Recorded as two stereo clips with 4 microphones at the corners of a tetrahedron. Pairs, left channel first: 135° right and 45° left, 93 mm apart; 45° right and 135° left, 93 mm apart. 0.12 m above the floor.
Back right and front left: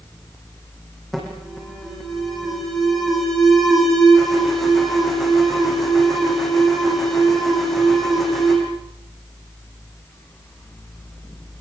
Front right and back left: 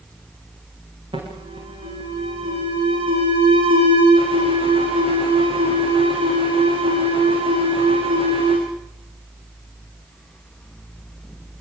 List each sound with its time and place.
1.1 s an alarm: 135° left, 8 m